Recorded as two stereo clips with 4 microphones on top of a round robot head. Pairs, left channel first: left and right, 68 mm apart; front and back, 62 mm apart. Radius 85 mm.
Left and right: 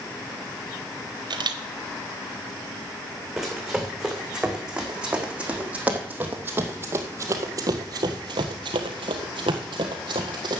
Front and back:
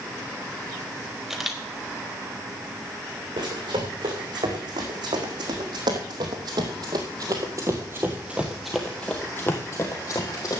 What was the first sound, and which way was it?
A camera shutter, 95° right.